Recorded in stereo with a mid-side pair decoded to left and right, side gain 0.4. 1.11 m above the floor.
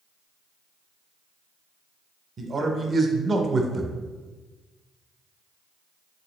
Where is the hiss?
I don't hear a hiss.